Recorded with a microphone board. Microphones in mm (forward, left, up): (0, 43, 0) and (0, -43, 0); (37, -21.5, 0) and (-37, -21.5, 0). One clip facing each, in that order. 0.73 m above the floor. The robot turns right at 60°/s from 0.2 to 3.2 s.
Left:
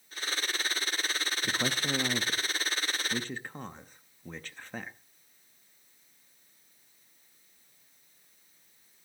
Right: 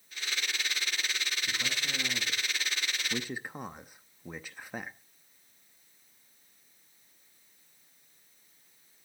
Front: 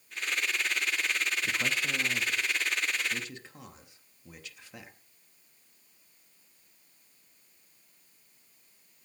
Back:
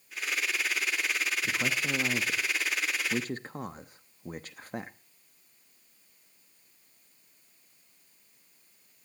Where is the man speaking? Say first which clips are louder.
Left 7 dB, back 1 dB; 90° left, 0.7 m; by 5.0 s 165° right, 0.7 m.